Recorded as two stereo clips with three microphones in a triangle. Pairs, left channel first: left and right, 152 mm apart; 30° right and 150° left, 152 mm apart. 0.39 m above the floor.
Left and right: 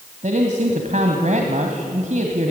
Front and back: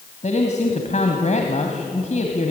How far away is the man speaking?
About 2 m.